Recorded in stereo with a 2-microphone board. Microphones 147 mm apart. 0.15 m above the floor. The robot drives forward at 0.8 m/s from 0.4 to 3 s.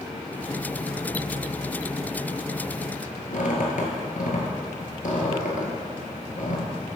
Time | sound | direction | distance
3.3 | a squeak | 65° left (ahead or behind) | 1.8 m